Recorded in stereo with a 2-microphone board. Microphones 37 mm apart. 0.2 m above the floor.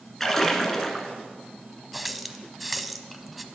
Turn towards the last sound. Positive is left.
turn(degrees=0)  # may be behind; listen again after turning